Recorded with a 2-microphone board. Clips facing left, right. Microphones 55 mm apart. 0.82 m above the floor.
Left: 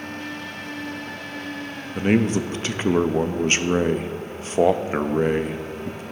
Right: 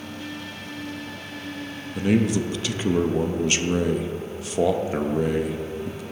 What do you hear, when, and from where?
1.9 s a man speaking: 40° left (ahead or behind), 0.5 m